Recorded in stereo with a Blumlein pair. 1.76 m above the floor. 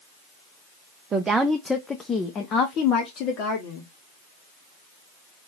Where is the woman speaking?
20° right, 0.6 m; by 3.9 s 45° left, 1.6 m.